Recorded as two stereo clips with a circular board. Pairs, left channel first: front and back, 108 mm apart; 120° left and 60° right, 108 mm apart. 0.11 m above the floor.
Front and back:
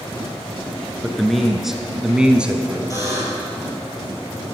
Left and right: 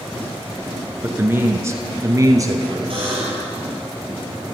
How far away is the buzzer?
About 3.5 m.